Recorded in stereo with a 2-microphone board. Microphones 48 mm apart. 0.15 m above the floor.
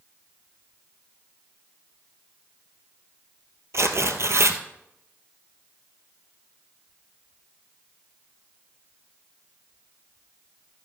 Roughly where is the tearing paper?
Right.